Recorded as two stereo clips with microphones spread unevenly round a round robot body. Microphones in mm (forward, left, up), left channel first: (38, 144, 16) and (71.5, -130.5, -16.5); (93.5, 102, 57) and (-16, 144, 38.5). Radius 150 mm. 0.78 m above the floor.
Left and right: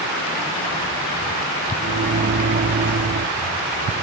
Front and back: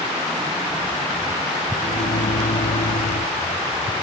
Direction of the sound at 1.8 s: 35° right.